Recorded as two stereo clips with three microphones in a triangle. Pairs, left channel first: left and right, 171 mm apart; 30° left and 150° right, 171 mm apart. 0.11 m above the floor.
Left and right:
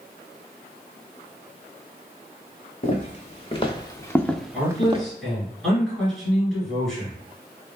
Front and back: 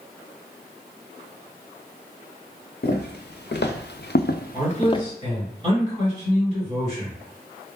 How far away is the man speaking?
About 1.9 m.